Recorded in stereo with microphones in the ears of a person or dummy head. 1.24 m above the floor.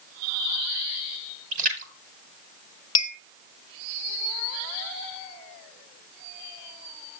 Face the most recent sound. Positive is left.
turn(degrees=25)  # may be behind; listen again after turning